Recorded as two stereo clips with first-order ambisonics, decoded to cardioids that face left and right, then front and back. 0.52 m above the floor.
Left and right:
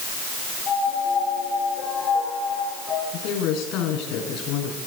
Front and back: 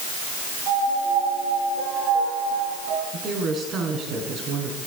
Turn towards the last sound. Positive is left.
turn(degrees=125)